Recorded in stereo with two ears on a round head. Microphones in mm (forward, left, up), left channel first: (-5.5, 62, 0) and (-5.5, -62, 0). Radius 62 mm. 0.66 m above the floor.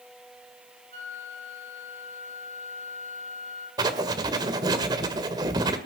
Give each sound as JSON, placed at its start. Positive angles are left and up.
{"t": 0.9, "sound": "a flute", "side_deg": -60, "distance_m": 6.5}
{"t": 3.8, "sound": "writing", "side_deg": -30, "distance_m": 1.6}